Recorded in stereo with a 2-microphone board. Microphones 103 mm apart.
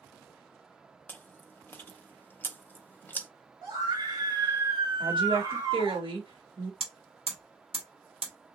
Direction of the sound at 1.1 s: 20° left (ahead or behind).